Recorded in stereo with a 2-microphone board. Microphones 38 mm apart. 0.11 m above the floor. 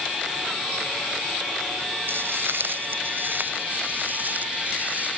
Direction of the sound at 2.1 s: 75° right (ahead or behind).